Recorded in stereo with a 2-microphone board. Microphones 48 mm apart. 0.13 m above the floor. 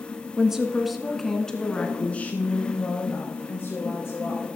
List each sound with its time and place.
0.4 s a woman speaking: 15° right (ahead or behind), 1.4 m; by 4.5 s 60° left (ahead or behind), 2 m